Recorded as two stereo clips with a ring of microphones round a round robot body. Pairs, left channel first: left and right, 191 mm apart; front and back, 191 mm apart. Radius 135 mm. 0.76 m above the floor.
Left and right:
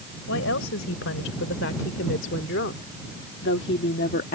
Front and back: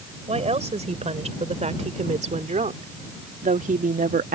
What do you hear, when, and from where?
0.3 s a woman speaking: 125° left; by 4.4 s 140° left